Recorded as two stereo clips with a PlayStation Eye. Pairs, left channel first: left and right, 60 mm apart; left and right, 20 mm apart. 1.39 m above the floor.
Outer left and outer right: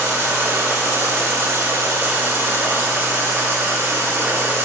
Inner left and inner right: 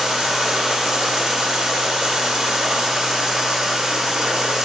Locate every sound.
0.0 s running water: 45° right (ahead or behind), 1.6 m